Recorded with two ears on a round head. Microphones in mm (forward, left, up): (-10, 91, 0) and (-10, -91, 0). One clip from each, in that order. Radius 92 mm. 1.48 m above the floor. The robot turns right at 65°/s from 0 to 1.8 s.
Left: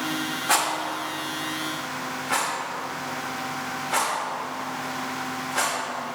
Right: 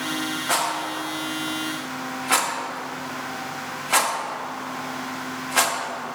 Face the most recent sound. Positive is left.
turn(degrees=-80)